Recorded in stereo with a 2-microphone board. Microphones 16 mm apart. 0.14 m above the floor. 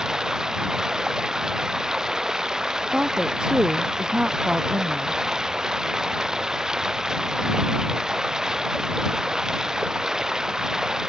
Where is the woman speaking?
75° right (ahead or behind).